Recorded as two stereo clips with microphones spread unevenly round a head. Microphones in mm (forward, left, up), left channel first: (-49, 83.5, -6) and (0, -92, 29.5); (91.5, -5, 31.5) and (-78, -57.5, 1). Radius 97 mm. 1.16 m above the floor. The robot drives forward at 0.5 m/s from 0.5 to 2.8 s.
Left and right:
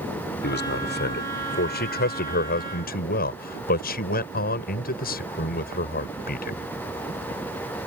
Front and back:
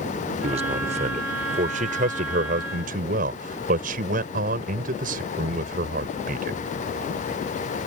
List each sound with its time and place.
0.4 s a man speaking: 135° left; by 6.6 s 145° left